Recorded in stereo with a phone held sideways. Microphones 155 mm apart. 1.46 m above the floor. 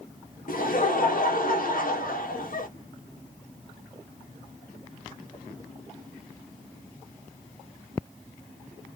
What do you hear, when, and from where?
0.5 s laughter: 60° left (ahead or behind), 1.1 m